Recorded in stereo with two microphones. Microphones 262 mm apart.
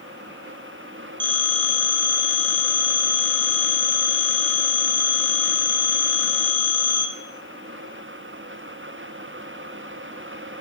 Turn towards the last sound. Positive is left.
turn(degrees=-50)  # may be behind; listen again after turning